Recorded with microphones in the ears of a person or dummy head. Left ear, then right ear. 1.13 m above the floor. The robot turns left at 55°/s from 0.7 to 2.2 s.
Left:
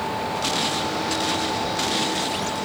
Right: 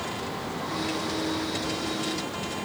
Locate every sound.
Only background noise.